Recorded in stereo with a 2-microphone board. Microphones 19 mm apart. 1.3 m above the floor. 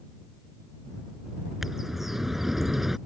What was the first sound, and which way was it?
A bird, 10° right (ahead or behind).